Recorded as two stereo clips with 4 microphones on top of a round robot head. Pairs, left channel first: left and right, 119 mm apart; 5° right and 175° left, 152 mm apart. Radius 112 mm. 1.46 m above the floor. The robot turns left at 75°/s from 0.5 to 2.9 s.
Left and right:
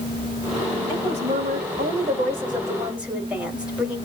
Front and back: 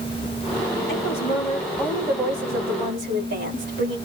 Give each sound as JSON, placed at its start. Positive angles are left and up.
{"t": 0.9, "sound": "a woman speaking", "azimuth_deg": -20, "distance_m": 3.0}